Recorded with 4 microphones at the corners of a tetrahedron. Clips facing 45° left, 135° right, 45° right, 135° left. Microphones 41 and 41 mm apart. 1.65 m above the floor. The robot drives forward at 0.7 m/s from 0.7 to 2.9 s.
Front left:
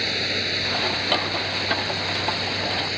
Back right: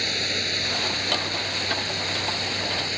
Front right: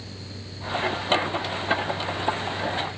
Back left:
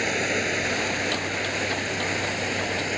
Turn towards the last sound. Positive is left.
turn(degrees=130)